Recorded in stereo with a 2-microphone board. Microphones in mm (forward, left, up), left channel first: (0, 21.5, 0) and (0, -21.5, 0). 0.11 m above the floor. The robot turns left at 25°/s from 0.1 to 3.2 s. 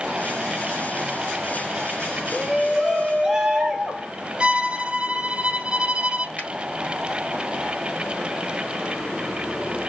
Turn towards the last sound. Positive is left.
turn(degrees=40)  # may be behind; listen again after turning